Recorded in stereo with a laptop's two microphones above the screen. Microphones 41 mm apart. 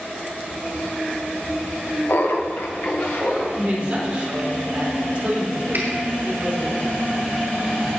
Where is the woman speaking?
30° right (ahead or behind), 3.5 m.